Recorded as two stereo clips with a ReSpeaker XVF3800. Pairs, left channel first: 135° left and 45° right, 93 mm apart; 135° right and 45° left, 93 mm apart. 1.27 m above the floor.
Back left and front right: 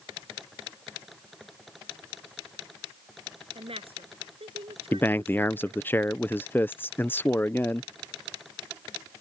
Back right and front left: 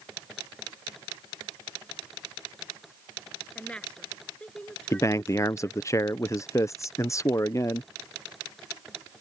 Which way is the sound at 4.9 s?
170° right.